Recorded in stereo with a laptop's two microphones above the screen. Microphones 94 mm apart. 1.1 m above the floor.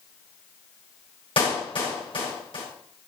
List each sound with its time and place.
1.4 s a clap: 65° left (ahead or behind), 5 m